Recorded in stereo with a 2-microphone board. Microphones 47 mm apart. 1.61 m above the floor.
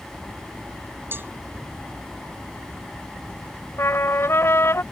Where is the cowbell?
50° right (ahead or behind).